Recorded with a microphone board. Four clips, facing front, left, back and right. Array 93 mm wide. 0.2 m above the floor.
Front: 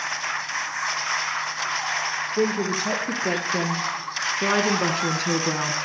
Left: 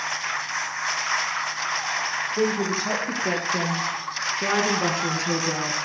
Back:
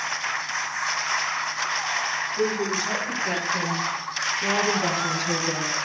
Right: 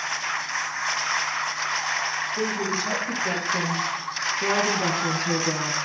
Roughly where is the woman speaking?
Ahead left.